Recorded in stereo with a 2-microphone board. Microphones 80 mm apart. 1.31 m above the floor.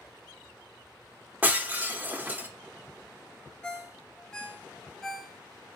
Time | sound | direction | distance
1.4 | breaking glass | 20° right (ahead or behind) | 1.0 m
3.6 | a ringtone | 10° left (ahead or behind) | 0.7 m